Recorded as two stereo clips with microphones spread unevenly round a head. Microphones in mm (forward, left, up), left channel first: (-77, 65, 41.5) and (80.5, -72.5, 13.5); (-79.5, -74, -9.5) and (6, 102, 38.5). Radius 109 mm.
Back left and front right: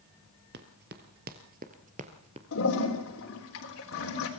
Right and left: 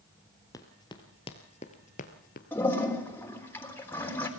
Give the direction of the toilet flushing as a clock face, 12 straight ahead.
7 o'clock.